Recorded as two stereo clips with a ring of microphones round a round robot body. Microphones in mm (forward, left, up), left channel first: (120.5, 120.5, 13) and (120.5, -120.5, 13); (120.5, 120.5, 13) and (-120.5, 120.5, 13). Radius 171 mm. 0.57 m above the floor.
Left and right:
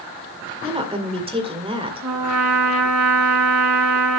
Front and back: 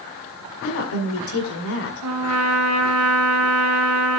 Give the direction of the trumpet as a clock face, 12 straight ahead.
4 o'clock.